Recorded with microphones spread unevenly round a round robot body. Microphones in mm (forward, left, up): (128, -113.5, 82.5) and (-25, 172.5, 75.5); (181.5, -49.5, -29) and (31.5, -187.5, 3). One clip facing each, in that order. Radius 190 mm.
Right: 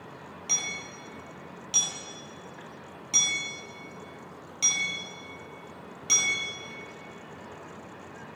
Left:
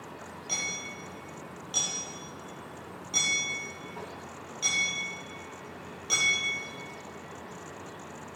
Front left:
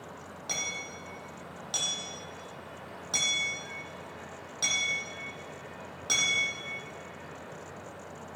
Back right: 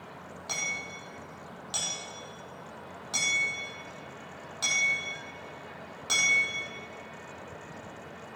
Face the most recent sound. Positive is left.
turn(degrees=-15)